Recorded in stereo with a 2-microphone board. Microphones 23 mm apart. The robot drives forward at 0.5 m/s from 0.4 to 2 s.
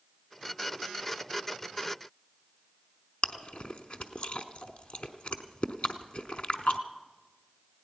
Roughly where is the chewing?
Left.